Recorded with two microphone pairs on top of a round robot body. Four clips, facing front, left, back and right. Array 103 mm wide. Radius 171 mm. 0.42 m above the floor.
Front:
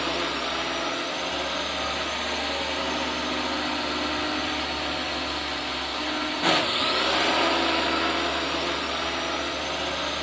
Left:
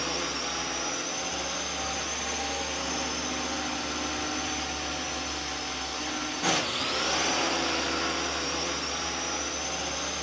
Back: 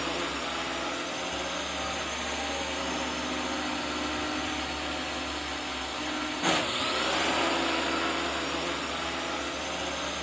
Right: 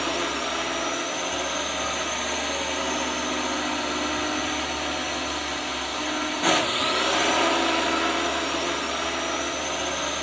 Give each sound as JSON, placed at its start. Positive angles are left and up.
{"t": 0.0, "sound": "a drone", "azimuth_deg": -65}